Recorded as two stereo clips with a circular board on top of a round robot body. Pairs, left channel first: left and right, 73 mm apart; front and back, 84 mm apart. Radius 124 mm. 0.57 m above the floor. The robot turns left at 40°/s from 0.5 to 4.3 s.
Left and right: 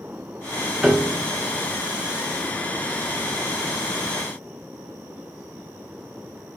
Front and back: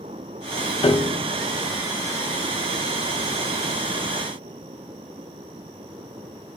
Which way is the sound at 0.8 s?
5° right.